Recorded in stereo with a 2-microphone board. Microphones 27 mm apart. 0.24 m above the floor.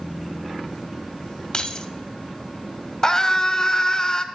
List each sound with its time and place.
1.5 s keys jangling: 30° left (ahead or behind), 0.7 m
3.0 s a scream: 25° left (ahead or behind), 1.0 m